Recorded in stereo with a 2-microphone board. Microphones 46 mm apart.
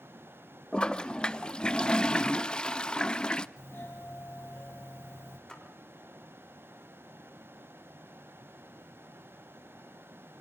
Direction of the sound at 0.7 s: 20° left (ahead or behind).